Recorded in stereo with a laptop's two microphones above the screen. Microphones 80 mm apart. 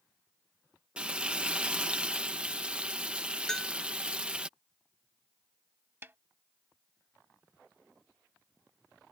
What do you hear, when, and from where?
1.0 s frying: 15° right (ahead or behind)
3.5 s a bell: 10° left (ahead or behind)
6.0 s a snare drum: 30° right (ahead or behind)